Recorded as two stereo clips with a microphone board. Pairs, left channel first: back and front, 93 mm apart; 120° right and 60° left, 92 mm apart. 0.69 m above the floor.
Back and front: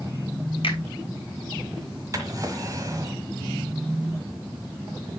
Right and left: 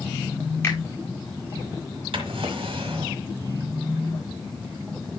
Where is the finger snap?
Straight behind, 2.5 m.